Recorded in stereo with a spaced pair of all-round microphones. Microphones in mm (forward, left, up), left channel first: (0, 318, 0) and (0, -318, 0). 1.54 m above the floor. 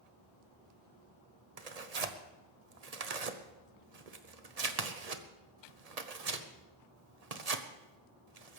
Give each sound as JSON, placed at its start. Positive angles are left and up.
{"t": 1.6, "sound": "tearing paper", "side_deg": -70, "distance_m": 1.1}